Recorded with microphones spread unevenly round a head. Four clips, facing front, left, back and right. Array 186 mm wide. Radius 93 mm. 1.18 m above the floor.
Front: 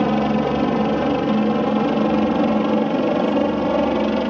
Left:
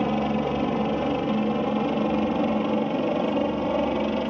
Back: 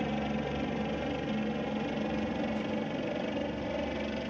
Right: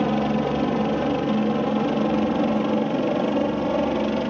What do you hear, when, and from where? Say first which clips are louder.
0.0 s a helicopter: right 2 dB, front 15 dB; 10° right